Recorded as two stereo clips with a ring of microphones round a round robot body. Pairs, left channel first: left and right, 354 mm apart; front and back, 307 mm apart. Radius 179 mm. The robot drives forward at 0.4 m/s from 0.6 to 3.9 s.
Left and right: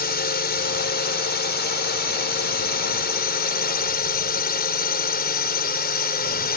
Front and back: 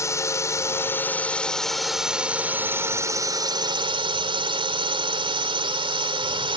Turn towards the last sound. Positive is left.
turn(degrees=125)